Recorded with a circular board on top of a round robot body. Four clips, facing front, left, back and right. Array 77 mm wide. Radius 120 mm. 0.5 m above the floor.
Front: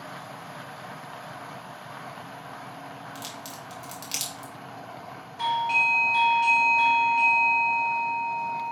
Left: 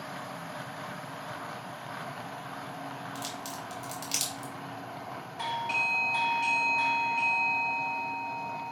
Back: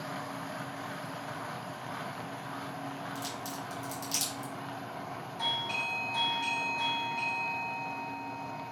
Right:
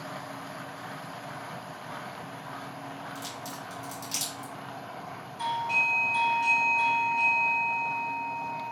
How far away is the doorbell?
About 3 m.